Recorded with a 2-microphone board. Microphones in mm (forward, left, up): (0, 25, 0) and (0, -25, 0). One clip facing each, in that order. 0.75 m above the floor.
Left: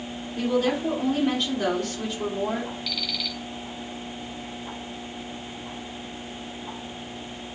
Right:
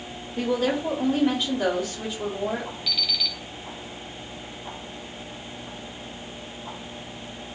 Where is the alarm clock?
5° right (ahead or behind), 2.5 m.